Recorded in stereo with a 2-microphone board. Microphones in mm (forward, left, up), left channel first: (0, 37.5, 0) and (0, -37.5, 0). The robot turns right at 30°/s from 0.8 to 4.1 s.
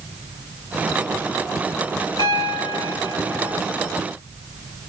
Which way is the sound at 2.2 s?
85° left.